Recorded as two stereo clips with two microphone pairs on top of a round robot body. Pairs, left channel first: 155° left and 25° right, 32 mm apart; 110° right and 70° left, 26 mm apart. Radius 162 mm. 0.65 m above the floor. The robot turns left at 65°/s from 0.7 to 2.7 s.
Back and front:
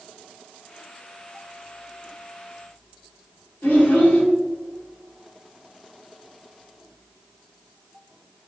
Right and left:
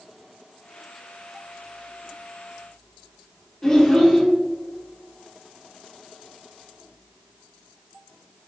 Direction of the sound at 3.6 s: 170° right.